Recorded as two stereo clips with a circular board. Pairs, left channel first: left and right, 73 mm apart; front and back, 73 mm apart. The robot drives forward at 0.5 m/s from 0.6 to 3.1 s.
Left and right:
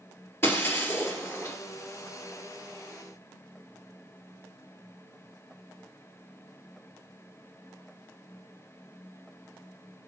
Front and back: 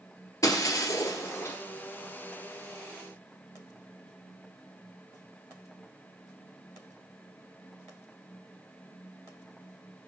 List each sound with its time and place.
0.4 s breaking glass: 40° left, 2 m; by 1.6 s 50° left, 1.8 m